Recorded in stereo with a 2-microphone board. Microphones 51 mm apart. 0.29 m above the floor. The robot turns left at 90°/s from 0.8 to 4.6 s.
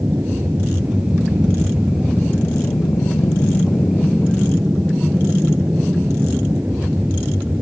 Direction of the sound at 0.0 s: 50° right.